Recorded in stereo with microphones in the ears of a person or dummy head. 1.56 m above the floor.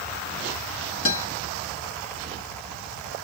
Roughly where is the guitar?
Left.